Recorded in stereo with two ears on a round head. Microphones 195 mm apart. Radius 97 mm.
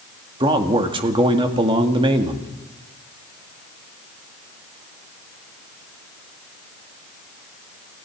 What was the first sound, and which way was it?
A man speaking, 25° right (ahead or behind).